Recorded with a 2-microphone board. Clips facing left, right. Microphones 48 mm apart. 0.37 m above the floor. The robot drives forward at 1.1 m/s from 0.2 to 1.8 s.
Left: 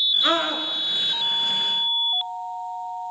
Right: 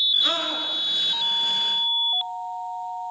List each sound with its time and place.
0.2 s a scream: 30° left (ahead or behind), 4.5 m